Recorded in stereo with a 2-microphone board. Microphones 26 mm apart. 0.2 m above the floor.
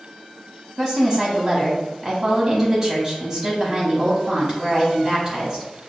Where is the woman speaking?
25° right (ahead or behind), 1.0 m.